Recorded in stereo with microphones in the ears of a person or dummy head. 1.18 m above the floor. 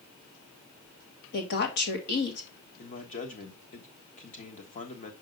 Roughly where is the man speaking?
Left.